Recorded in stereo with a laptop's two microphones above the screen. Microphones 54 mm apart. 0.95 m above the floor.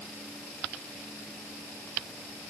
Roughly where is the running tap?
I don't hear a running tap.